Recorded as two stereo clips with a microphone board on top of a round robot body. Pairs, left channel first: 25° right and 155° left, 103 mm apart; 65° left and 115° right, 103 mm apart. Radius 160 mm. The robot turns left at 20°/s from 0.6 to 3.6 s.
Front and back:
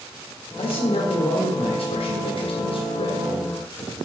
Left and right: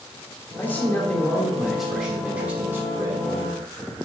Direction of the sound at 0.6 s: 10° left.